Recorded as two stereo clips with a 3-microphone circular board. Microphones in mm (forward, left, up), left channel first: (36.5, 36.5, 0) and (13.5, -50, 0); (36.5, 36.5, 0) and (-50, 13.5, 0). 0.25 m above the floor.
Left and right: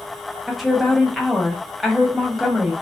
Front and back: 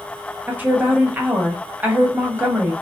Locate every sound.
0.5 s a woman speaking: 165° left, 1.1 m